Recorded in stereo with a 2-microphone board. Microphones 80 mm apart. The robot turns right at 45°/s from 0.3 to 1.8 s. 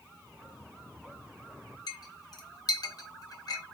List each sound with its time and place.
1.9 s a clink: 55° left (ahead or behind), 0.7 m